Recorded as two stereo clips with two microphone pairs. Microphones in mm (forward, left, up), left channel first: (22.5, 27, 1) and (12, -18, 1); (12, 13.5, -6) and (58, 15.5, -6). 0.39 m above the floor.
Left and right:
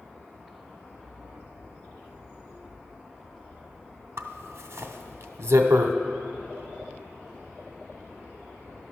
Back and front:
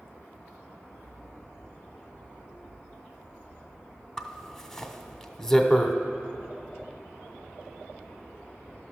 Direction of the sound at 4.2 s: 95° right.